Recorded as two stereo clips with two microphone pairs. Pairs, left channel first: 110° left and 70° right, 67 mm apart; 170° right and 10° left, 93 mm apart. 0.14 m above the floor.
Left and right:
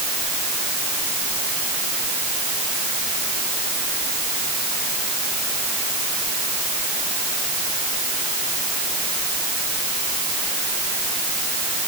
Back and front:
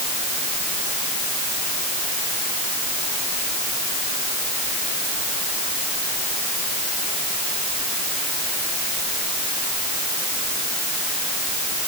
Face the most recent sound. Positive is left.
No sound to turn to.